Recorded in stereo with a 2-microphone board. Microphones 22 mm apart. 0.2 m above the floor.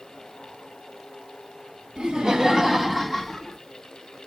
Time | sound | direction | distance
2.0 | laughter | 45° right (ahead or behind) | 1.4 m